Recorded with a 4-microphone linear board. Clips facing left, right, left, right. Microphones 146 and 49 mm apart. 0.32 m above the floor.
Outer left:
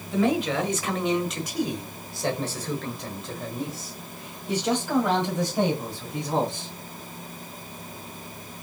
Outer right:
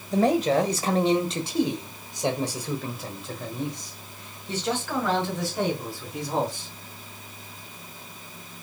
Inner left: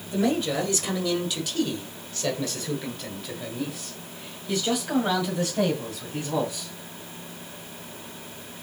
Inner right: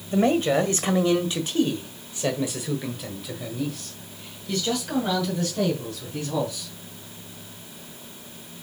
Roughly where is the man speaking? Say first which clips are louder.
Outer right 3 dB, inner right 4 dB; right.